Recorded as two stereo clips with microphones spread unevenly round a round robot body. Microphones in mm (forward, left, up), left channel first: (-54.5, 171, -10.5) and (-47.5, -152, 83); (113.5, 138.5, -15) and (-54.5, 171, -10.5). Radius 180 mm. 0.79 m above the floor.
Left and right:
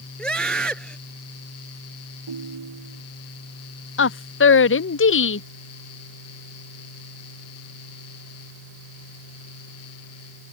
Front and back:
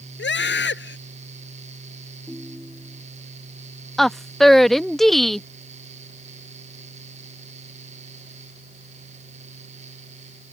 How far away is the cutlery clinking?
I don't hear cutlery clinking.